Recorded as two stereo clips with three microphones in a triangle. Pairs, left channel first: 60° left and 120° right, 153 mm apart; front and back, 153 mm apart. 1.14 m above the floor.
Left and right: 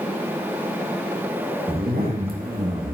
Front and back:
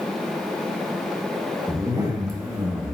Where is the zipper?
115° right, 1.3 m.